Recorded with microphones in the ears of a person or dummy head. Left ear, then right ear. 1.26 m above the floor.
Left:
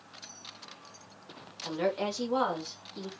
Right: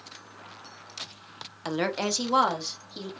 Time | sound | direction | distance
1.6 | a woman speaking | 60° right (ahead or behind) | 0.6 m